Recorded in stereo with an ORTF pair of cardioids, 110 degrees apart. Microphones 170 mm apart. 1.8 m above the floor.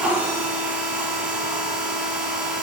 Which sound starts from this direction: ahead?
A machine running, at 0.0 s.